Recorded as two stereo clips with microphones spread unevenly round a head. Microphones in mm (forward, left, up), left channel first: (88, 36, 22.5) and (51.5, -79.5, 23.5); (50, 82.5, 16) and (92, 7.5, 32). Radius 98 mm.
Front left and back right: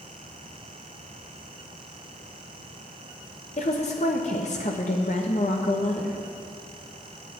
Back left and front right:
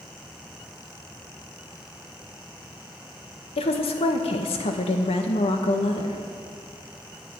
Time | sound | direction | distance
3.6 | a woman speaking | 130° left | 1.1 m